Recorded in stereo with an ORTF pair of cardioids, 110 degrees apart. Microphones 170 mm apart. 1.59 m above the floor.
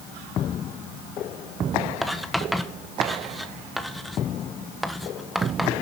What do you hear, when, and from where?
2.0 s writing: straight ahead, 1.4 m